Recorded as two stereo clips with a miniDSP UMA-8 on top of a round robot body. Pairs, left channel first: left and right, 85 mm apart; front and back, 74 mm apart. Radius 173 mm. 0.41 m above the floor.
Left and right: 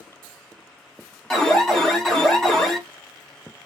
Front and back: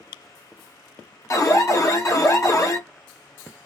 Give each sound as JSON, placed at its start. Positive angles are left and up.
{"t": 1.3, "sound": "an alarm", "azimuth_deg": 5, "distance_m": 2.5}